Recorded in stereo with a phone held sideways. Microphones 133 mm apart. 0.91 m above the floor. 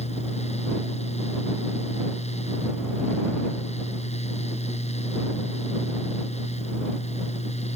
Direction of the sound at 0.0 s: 55° left (ahead or behind).